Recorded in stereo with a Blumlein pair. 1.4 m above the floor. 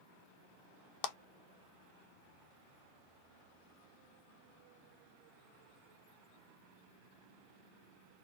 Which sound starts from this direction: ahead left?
A clap, at 1.0 s.